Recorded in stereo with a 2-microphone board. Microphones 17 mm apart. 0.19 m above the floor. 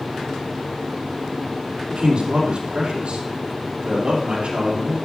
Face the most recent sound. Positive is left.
turn(degrees=-65)  # may be behind; listen again after turning